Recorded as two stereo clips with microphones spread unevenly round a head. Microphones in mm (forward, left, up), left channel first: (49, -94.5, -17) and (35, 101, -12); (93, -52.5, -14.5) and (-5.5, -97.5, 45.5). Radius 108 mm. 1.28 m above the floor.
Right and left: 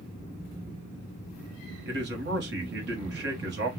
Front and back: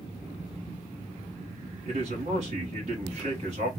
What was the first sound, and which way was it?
A man speaking, 140° left.